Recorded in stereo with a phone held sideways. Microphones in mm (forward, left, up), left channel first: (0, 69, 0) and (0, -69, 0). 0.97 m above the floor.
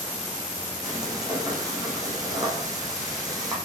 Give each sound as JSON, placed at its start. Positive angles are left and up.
{"t": 0.8, "sound": "frying", "side_deg": -25, "distance_m": 8.5}